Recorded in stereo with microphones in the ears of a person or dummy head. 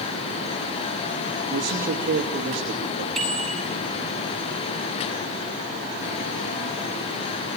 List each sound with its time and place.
1.5 s a man speaking: 40° right (ahead or behind), 2.5 m
3.1 s a bicycle bell: centre (ahead or behind), 7 m